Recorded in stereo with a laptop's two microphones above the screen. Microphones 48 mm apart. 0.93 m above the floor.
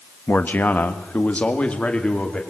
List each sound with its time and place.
0.3 s a man speaking: 45° left (ahead or behind), 1.1 m; by 2.4 s 20° left (ahead or behind), 2.5 m